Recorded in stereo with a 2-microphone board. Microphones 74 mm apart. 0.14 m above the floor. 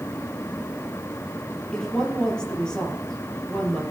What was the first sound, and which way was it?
A woman speaking, 10° left (ahead or behind).